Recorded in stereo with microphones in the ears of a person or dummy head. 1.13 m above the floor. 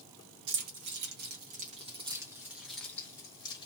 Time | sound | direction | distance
0.5 | keys jangling | 75° right (ahead or behind) | 1.2 m